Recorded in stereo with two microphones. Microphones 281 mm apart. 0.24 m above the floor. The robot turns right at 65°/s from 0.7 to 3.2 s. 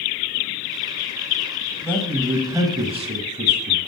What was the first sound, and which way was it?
A man speaking, 10° left (ahead or behind).